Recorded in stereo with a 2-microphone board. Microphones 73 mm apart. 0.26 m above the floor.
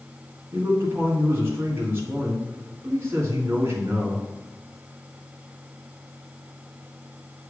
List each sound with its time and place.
0.5 s a man speaking: 35° right (ahead or behind), 3 m